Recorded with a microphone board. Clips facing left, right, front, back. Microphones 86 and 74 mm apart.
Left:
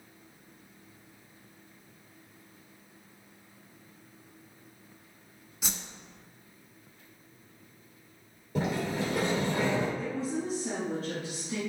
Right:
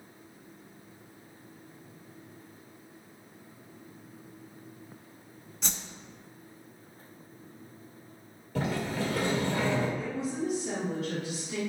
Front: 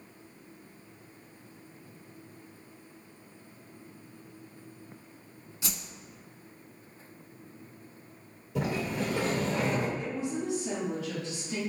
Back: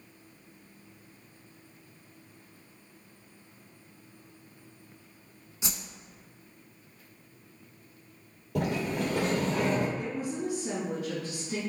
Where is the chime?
No chime in this recording.